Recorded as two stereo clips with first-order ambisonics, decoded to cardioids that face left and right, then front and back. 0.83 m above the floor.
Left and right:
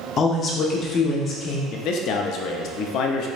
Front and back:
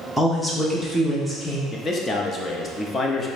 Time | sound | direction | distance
0.2 | a woman speaking | 85° left | 0.7 m
1.7 | a man speaking | 70° left | 0.5 m